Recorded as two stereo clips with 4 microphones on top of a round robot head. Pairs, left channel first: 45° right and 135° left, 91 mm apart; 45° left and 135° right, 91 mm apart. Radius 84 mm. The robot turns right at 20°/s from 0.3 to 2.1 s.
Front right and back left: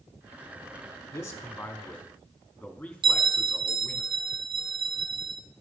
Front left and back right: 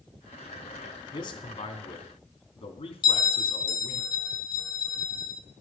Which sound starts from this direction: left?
A bell, at 3.0 s.